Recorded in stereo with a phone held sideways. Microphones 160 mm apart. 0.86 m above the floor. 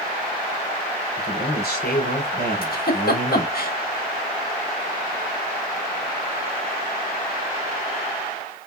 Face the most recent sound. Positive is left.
turn(degrees=70)  # may be behind; listen again after turning